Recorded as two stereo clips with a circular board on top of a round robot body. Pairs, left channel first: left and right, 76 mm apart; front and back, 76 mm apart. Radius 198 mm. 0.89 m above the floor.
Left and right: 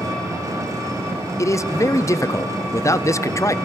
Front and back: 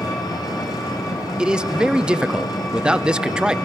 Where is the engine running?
45° right, 2.5 m.